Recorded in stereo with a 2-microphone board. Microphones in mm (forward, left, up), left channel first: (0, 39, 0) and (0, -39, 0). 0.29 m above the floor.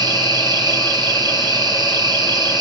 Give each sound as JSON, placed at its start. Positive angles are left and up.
{"t": 0.0, "sound": "an insect", "side_deg": -65, "distance_m": 3.0}